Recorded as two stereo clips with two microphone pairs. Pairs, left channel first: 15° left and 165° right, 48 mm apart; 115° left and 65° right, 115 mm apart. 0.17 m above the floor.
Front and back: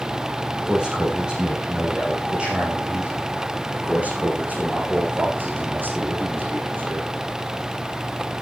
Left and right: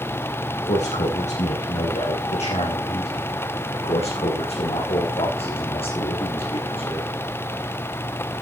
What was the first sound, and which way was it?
A man speaking, 120° left.